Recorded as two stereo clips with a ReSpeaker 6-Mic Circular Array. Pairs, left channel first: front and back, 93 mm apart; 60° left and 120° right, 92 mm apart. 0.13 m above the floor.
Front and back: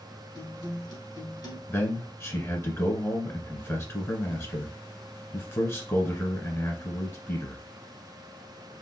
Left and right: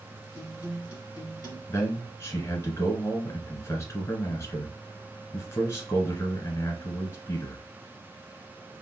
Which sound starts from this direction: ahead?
A guitar, at 0.3 s.